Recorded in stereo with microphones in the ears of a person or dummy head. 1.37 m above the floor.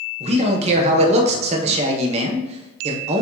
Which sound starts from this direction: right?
A man speaking, at 0.2 s.